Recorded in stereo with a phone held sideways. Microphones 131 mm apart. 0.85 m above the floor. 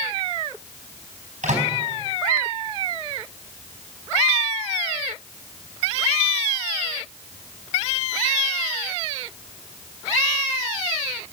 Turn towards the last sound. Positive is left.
turn(degrees=-85)